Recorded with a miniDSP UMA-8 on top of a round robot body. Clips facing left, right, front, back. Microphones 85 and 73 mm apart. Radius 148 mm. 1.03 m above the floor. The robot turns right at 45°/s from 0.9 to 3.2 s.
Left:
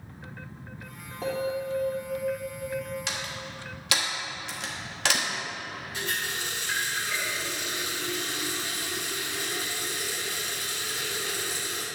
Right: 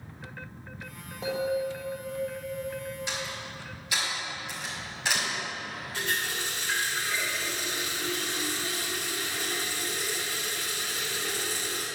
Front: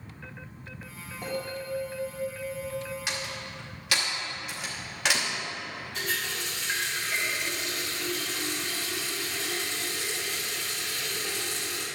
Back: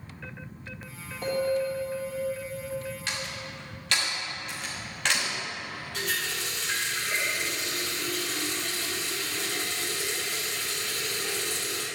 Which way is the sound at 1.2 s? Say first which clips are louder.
Right 1 dB, back 8 dB; 80° left.